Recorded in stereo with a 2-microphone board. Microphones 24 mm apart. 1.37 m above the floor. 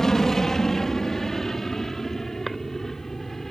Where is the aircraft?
20° left (ahead or behind); by 3.5 s 10° left (ahead or behind).